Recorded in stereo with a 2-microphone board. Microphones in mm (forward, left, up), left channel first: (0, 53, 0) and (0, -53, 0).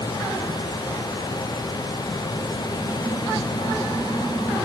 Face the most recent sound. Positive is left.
No sound to turn to.